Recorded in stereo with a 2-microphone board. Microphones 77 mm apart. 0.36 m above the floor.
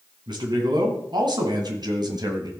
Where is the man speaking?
75° right (ahead or behind), 3 m; by 2.5 s 60° right (ahead or behind), 1.8 m.